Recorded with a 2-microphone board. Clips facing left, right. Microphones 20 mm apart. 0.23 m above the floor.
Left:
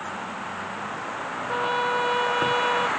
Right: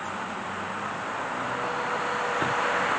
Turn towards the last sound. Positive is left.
turn(degrees=60)  # may be behind; listen again after turning